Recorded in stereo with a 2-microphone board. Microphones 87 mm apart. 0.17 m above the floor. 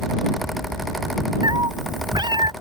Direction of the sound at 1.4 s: 55° right (ahead or behind).